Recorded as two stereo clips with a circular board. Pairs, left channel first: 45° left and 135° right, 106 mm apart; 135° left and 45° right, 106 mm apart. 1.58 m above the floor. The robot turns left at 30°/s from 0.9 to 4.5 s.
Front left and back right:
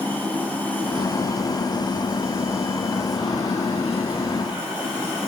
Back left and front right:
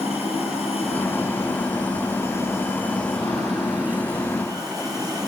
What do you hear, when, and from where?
0.0 s running water: 120° left, 8.5 m; by 5.3 s 10° left, 8.5 m